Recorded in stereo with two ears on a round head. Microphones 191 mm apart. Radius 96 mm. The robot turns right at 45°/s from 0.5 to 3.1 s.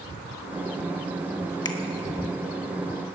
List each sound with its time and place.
1.6 s a finger snap: 20° left (ahead or behind), 1.3 m; by 1.8 s 25° left (ahead or behind), 1.3 m